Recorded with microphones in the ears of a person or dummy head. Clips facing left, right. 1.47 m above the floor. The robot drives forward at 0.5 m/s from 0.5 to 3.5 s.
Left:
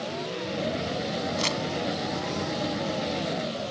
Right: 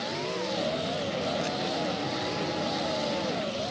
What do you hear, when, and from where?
1.4 s crumpling: 80° left